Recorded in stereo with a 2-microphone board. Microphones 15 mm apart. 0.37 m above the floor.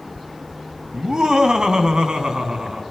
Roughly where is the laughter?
Right.